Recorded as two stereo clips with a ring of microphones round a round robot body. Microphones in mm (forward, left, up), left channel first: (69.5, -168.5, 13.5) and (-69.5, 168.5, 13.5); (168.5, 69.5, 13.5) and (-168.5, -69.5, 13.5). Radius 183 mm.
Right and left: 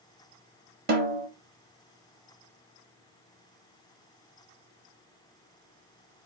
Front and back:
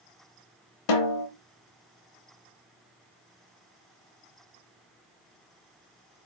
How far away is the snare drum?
About 0.9 m.